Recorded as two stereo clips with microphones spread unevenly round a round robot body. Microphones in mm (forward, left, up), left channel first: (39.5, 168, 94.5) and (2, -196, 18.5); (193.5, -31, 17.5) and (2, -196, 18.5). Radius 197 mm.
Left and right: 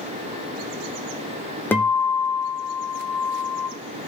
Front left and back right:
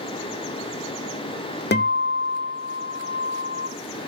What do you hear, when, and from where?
1.7 s a guitar: 5° right, 1.1 m